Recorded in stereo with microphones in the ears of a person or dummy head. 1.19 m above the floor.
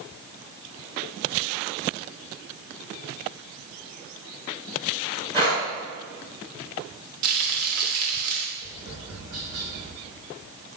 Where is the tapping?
80° right, 3 m.